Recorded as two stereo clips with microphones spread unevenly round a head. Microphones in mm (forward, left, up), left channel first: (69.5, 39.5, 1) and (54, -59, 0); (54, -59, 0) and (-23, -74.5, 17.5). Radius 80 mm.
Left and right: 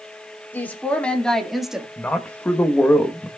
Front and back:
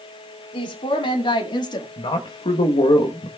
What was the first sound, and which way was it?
A woman speaking, 10° left.